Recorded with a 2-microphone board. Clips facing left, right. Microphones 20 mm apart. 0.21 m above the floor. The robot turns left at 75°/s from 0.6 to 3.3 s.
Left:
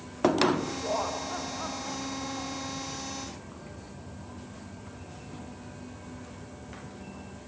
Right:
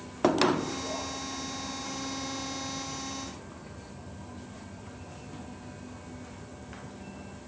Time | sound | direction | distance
0.8 | laughter | 150° left | ?